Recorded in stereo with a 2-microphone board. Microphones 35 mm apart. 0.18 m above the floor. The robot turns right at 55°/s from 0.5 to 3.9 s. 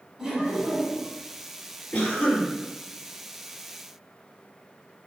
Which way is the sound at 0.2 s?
15° right (ahead or behind).